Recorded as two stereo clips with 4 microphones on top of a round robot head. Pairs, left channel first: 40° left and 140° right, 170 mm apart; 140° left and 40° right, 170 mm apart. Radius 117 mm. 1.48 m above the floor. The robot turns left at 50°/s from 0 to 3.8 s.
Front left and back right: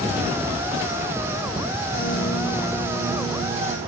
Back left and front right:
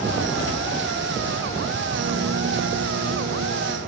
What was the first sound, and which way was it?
A piano, 5° left.